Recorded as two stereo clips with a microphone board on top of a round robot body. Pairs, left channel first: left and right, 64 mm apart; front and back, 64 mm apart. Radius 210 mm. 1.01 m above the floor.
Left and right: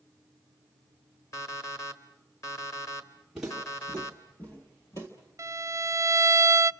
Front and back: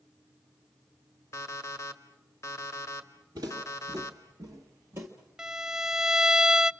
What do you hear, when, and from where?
1.3 s an alarm clock: 45° left, 1.4 m
3.4 s footsteps: 175° right, 1.5 m; by 5.1 s 130° left, 1.4 m
5.4 s a violin: 100° right, 0.6 m